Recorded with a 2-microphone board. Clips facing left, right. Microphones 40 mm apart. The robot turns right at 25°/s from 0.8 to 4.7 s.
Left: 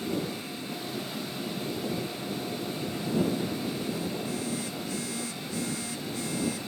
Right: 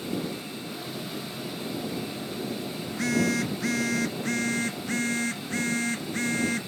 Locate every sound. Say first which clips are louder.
2.9 s a phone buzzing: right 4 dB; 100° right; by 6.7 s 55° right